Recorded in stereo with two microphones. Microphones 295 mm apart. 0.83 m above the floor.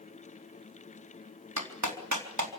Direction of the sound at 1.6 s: 80° right.